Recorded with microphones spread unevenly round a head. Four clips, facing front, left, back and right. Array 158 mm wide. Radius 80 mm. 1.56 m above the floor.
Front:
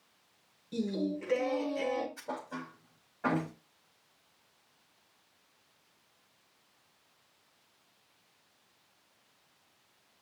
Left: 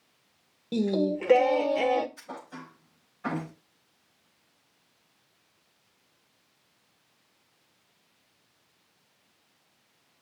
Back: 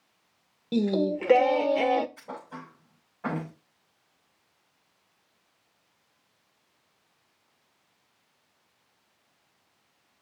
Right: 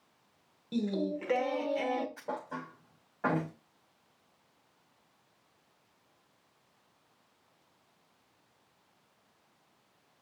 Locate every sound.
0.7 s singing: 150° left, 1.0 m
2.2 s a thud: 90° right, 5.5 m